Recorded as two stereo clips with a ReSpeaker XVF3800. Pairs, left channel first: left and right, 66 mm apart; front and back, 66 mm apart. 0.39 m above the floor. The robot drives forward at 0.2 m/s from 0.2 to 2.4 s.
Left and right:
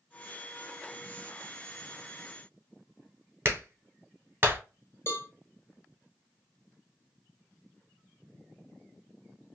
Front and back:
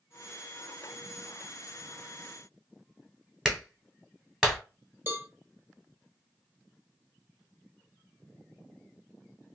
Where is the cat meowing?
No cat meowing in this recording.